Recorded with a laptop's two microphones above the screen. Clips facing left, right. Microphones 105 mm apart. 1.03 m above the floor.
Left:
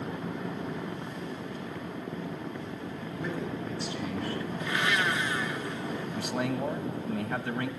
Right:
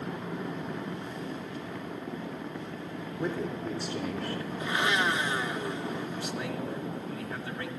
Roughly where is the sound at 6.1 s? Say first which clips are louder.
Left 3 dB; left.